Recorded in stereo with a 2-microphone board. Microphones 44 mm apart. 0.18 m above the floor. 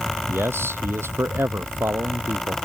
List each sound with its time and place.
0.3 s a man speaking: 70° right (ahead or behind)